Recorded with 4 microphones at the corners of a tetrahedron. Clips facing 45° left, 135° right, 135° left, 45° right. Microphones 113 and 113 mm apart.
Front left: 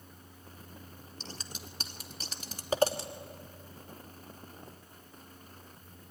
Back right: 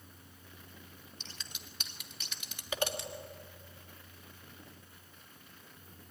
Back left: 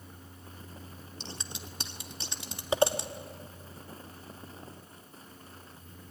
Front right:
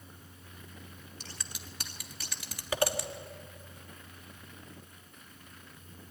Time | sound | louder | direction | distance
1.2 | scissors | front left 9 dB, back left 6 dB | 80° left | 1.4 m